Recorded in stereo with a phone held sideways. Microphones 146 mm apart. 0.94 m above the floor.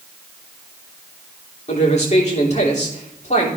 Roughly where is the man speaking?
Left.